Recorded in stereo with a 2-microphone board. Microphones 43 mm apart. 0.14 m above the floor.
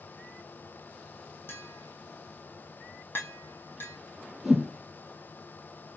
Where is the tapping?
55° left (ahead or behind), 1.3 m.